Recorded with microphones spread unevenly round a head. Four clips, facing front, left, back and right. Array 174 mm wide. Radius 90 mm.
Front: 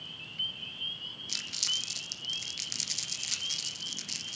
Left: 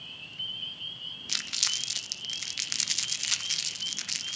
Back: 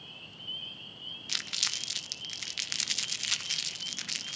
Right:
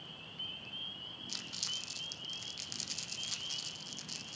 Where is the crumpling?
115° left, 0.8 m.